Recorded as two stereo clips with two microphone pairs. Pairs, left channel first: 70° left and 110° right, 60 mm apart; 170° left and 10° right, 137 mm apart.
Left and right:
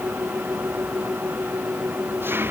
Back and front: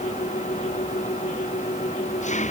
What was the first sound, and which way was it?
An engine running, 165° right.